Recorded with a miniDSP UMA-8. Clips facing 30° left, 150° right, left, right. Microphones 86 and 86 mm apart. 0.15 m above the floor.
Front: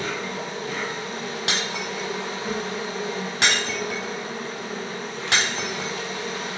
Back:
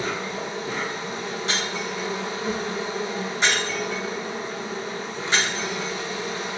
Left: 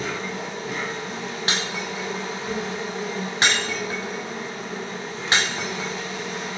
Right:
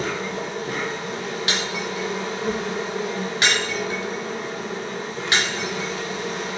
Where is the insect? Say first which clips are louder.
Back 1 dB, right 2 dB; 75° right, 1.2 m.